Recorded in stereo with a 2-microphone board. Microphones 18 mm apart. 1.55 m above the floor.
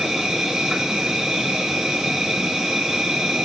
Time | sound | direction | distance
0.0 | an insect | 70° right (ahead or behind) | 1.8 m